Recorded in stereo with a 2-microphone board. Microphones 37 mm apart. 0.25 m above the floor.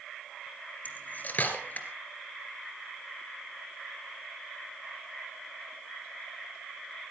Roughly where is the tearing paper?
No tearing paper in this recording.